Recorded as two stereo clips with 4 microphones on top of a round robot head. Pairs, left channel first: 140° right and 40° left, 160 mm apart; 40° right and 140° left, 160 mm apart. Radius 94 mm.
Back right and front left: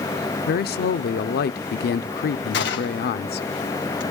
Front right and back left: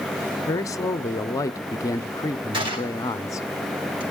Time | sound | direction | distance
0.5 | a man speaking | 110° right | 0.6 m
2.5 | a gunshot | 160° right | 3 m